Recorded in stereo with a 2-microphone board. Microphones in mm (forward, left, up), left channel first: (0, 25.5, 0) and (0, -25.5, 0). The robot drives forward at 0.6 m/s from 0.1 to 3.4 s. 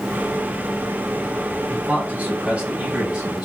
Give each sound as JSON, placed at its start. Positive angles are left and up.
{"t": 1.7, "sound": "a man speaking", "side_deg": -30, "distance_m": 1.3}